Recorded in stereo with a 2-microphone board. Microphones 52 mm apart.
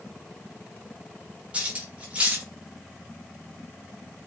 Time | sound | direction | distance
1.5 | cutlery clinking | 25° right (ahead or behind) | 0.8 m